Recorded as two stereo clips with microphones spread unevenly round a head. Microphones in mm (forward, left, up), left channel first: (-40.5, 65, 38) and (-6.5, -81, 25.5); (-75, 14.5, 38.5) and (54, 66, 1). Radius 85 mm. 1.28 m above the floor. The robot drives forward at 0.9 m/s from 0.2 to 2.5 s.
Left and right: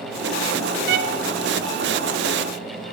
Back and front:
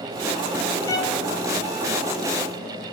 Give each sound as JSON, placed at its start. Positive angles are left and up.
{"t": 0.9, "sound": "a violin", "azimuth_deg": -85, "distance_m": 1.4}